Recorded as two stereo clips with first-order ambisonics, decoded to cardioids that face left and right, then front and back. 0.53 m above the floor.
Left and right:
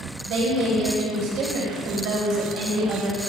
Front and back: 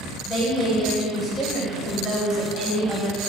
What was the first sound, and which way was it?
A woman speaking, 105° right.